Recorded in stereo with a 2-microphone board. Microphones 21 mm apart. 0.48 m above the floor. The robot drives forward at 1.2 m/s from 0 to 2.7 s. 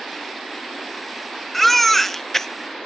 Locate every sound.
1.5 s a baby crying: 5° left (ahead or behind), 1.6 m; by 2.5 s 15° left (ahead or behind), 0.6 m